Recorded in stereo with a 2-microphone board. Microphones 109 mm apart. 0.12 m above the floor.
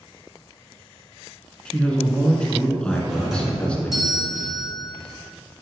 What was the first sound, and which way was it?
A man speaking, 10° left (ahead or behind).